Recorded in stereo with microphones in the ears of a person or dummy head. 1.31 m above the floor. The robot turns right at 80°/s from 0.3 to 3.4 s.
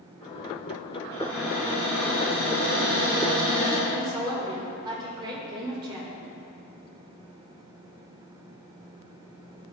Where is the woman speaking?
25° right (ahead or behind), 1.9 m.